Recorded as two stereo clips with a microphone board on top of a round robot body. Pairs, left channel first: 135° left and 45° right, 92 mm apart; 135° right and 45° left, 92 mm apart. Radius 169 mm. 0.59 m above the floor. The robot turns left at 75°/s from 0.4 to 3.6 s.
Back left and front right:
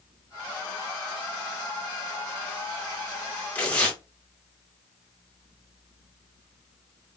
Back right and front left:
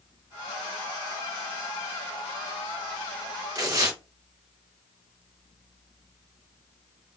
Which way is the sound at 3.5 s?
70° left.